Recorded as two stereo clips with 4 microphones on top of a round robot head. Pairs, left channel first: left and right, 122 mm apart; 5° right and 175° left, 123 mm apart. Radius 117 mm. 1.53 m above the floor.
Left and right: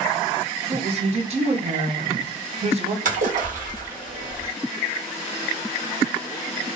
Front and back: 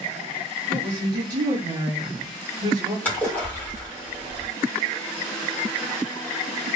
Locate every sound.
0.7 s a woman speaking: 125° right, 1.2 m
3.0 s a splash: 80° right, 1.5 m